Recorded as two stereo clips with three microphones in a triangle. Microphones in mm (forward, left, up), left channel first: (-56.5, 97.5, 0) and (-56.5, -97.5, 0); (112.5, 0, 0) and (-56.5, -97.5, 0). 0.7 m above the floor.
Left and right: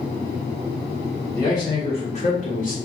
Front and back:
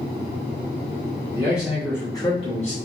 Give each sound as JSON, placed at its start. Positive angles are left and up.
{"t": 1.3, "sound": "a man speaking", "azimuth_deg": 155, "distance_m": 1.1}